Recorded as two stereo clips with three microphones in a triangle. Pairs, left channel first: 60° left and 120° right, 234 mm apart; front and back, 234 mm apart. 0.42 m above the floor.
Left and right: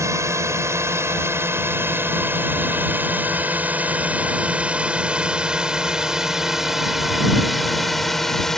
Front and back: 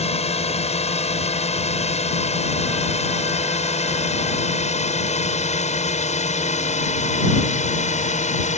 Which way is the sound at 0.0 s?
50° right.